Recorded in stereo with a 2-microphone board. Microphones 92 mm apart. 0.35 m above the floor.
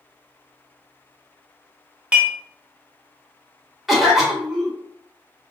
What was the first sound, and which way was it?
Dishes clattering, 15° right (ahead or behind).